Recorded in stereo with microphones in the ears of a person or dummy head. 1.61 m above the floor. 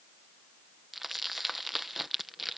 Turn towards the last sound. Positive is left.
turn(degrees=0)  # may be behind; listen again after turning